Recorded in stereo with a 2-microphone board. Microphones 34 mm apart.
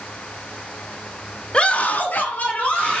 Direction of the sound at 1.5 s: 30° left (ahead or behind).